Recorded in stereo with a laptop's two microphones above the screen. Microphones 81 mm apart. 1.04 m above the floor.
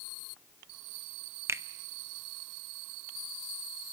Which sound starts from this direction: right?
A finger snap, at 1.5 s.